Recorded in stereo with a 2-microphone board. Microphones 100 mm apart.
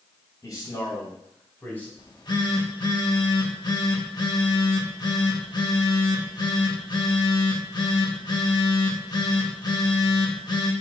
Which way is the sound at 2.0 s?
45° left (ahead or behind).